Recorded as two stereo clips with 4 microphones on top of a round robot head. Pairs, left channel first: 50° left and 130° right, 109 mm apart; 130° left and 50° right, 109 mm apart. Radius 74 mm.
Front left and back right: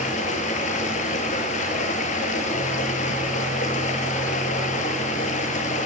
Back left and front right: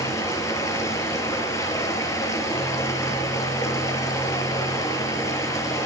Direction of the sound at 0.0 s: 65° left.